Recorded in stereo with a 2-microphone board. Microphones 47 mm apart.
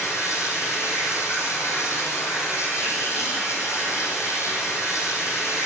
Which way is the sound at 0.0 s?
80° left.